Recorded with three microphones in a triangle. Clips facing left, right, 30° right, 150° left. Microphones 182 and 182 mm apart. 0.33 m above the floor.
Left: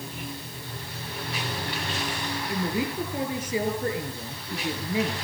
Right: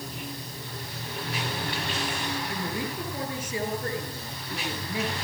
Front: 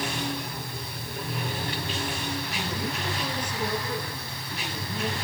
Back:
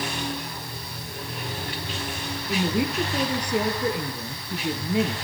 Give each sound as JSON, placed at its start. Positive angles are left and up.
{"t": 2.5, "sound": "a woman speaking", "azimuth_deg": 155, "distance_m": 6.0}